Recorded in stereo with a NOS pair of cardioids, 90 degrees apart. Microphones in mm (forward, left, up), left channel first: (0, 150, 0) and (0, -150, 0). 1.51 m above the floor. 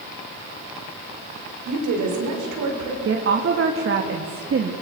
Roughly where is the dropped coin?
No dropped coin in this recording.